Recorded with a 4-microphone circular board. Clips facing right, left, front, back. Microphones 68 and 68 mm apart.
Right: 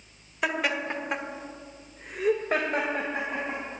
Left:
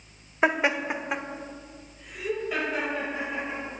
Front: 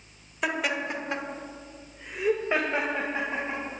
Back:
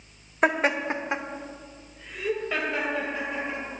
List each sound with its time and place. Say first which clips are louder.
0.4 s laughter: left 4 dB, back 5 dB; 140° left, 1.8 m; by 3.8 s 55° right, 4 m